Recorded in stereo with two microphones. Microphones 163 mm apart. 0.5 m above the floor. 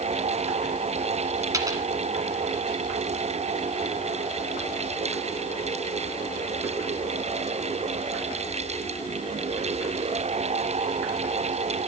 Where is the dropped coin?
20° right (ahead or behind), 1.3 m.